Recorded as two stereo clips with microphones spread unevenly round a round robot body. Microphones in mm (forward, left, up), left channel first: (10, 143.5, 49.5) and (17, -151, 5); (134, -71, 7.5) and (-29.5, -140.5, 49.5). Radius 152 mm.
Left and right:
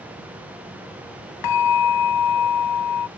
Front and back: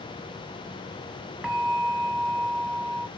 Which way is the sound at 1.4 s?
115° left.